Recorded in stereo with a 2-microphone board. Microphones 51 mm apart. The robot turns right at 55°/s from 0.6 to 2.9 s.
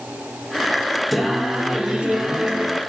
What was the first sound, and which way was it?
Singing, centre (ahead or behind).